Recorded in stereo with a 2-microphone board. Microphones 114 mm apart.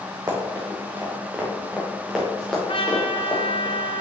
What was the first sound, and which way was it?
Running footsteps, 30° right (ahead or behind).